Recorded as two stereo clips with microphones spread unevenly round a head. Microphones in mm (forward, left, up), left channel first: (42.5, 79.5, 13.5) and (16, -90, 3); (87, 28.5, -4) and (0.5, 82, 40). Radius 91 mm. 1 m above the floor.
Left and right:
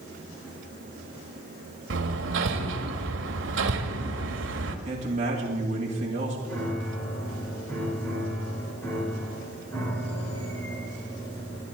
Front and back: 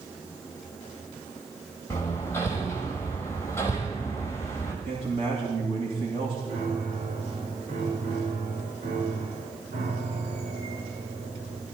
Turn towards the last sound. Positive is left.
turn(degrees=160)